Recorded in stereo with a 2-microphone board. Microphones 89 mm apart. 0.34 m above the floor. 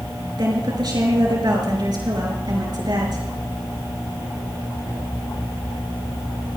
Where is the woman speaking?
55° right (ahead or behind), 5.5 m.